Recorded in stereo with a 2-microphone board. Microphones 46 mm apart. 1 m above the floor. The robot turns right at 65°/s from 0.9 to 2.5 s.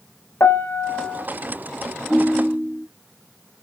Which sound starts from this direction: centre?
A ringtone, at 2.1 s.